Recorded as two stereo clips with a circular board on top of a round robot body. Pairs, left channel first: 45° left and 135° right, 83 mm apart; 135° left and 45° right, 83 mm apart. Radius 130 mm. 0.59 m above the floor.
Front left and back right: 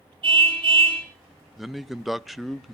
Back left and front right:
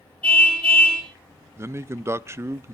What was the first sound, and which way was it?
A car horn, 150° right.